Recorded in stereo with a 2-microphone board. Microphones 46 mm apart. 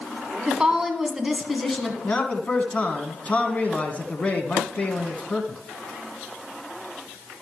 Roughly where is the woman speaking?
Centre.